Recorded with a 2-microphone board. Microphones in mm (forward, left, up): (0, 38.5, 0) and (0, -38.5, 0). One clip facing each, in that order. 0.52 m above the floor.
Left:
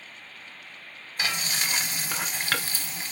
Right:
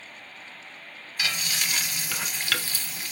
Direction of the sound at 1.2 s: 30° left (ahead or behind).